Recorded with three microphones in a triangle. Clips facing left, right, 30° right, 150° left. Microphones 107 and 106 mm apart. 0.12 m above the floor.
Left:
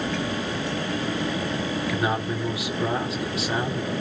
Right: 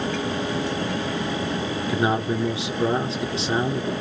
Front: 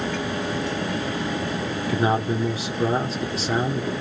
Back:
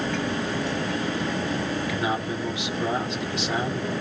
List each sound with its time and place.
1.9 s a man speaking: 45° right, 1.8 m